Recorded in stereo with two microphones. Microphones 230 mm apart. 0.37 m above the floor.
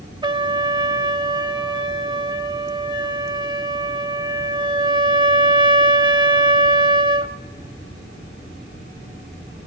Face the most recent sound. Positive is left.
turn(degrees=-20)  # may be behind; listen again after turning